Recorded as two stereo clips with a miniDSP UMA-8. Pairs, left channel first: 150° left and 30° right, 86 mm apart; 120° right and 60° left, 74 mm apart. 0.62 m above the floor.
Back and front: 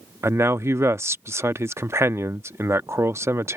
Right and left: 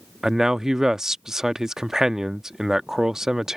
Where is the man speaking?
15° right.